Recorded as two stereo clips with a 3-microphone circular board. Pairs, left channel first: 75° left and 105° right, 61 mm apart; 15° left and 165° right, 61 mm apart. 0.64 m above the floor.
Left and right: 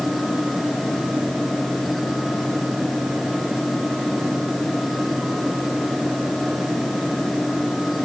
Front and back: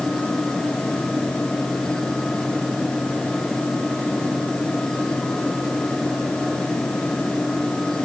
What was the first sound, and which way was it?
Only background noise.